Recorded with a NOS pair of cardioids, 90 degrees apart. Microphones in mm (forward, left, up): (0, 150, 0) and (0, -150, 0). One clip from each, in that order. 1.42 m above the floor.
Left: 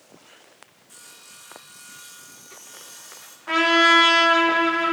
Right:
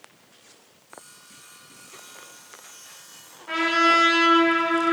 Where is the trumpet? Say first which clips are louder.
Left 3 dB; 35° left, 1.2 m.